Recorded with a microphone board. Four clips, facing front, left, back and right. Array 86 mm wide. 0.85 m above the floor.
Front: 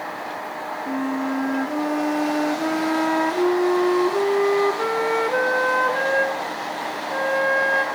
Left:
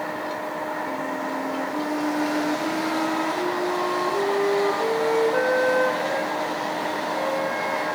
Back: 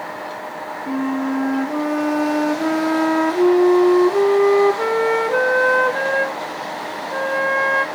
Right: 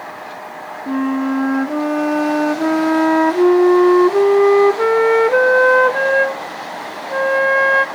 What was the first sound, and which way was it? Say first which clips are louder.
A flute: right 9 dB, back 4 dB; 100° right.